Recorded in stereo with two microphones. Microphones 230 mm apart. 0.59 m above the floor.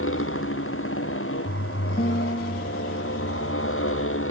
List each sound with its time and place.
0.0 s a motorcycle: 65° left (ahead or behind)
2.0 s a guitar: 40° left (ahead or behind)